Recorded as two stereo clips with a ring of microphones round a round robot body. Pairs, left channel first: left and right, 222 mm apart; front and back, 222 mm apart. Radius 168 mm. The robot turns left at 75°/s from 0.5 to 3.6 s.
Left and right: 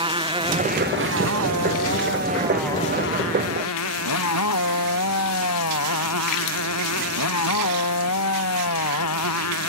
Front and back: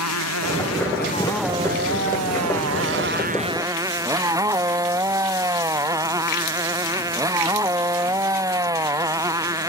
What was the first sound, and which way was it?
A motorcycle, 20° right.